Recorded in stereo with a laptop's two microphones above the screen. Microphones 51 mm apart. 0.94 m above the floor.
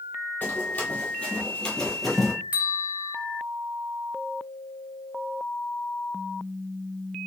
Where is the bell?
25° right (ahead or behind), 0.7 m.